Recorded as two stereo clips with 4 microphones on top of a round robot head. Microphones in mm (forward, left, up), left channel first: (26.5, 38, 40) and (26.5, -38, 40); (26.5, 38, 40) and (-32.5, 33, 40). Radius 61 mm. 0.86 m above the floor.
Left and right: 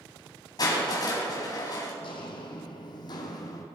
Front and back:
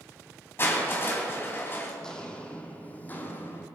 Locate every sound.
0.6 s crushing: 55° left, 3.5 m
2.0 s footsteps: 80° left, 1.9 m; by 3.6 s 55° left, 2 m